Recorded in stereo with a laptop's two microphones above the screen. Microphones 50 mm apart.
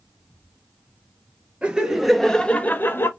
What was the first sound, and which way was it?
Laughter, 20° right (ahead or behind).